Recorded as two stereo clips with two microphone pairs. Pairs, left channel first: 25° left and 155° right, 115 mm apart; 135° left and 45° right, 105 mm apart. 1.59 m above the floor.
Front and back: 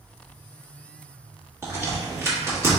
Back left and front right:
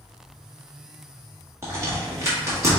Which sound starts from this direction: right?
A crack, at 1.6 s.